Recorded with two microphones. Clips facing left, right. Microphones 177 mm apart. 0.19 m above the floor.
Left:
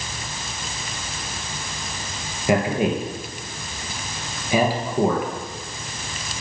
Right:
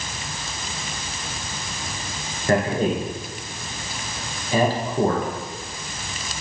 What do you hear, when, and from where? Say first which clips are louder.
2.5 s a man speaking: even; 10° left (ahead or behind), 3 m